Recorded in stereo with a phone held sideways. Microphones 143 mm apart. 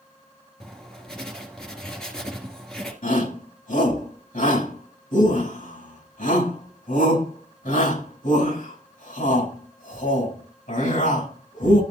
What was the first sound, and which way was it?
Writing, 5° left (ahead or behind).